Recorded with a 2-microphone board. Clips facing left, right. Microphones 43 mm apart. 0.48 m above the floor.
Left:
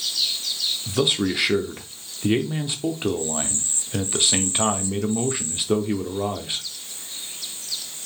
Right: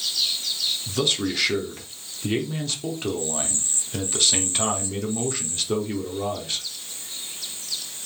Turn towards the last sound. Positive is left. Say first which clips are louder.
# left 4 dB
turn(degrees=20)  # may be behind; listen again after turning